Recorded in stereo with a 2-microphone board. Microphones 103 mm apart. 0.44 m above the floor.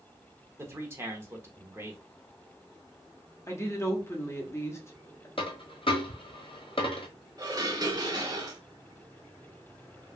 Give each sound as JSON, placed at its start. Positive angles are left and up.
{"t": 0.6, "sound": "a man speaking", "side_deg": -25, "distance_m": 0.7}
{"t": 3.5, "sound": "a woman speaking", "side_deg": 25, "distance_m": 0.8}
{"t": 5.4, "sound": "a dropped coin", "side_deg": 60, "distance_m": 0.8}
{"t": 7.4, "sound": "dishes clattering", "side_deg": -35, "distance_m": 0.9}